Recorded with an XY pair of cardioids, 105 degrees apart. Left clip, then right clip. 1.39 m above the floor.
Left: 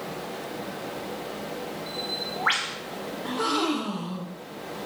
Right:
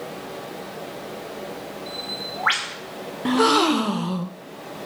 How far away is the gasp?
About 0.5 m.